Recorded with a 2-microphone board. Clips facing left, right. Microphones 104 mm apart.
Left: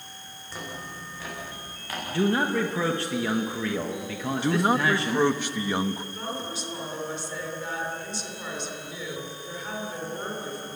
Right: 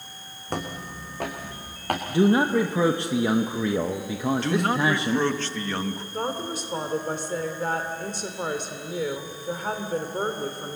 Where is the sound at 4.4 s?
15° left (ahead or behind), 1.1 m.